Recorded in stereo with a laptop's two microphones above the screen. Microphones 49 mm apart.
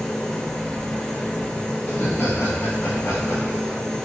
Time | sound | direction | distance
0.0 | a machine running | 15° left (ahead or behind) | 0.9 m
1.9 | laughter | 45° left (ahead or behind) | 1.4 m